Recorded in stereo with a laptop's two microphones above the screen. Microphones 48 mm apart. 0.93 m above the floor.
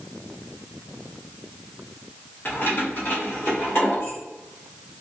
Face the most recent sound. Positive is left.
turn(degrees=50)  # may be behind; listen again after turning